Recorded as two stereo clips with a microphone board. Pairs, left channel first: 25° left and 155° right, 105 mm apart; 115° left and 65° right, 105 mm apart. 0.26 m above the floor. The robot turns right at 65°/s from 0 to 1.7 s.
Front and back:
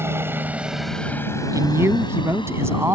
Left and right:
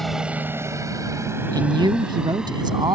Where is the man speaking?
110° right; by 3.0 s 100° right.